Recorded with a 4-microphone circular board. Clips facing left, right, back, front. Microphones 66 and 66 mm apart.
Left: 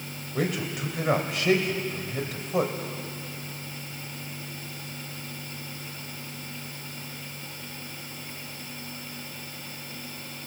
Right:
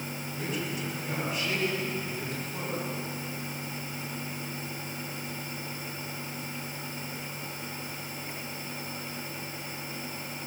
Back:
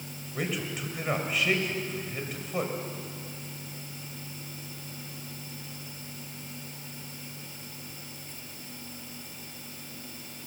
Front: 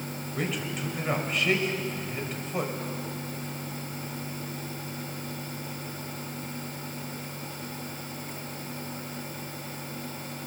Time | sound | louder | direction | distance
0.3 | a man speaking | left 6 dB, even | 90° left | 4.5 m